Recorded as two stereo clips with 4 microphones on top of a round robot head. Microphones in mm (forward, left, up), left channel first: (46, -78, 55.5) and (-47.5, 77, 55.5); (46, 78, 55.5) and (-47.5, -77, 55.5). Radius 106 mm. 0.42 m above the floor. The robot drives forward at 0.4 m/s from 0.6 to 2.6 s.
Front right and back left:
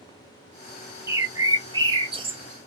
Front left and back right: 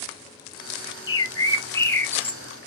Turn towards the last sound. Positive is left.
turn(degrees=140)